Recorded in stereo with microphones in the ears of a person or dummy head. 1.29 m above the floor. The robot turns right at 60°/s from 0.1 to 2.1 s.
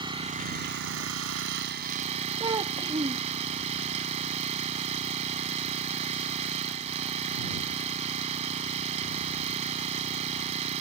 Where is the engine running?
155° right; by 10.8 s 35° right.